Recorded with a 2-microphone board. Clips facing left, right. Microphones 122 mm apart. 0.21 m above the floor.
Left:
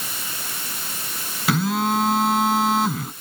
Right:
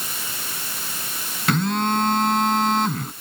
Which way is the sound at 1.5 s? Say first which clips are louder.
Even; 5° left (ahead or behind).